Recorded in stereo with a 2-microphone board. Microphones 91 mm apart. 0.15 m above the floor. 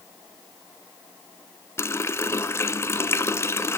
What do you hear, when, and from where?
1.8 s a running tap: 30° left (ahead or behind), 0.9 m